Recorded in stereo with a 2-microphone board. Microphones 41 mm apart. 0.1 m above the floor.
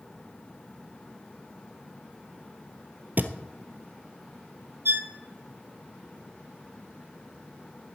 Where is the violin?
60° right (ahead or behind), 1.4 m.